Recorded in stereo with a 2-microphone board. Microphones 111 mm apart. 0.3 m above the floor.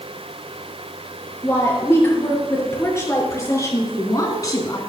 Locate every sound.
1.4 s a woman speaking: 20° left (ahead or behind), 6 m; by 4.8 s 35° left (ahead or behind), 2.5 m